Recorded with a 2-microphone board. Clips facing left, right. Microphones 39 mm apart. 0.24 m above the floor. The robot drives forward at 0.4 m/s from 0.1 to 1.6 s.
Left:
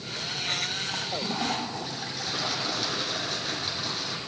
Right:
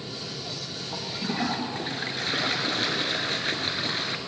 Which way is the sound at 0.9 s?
35° right (ahead or behind).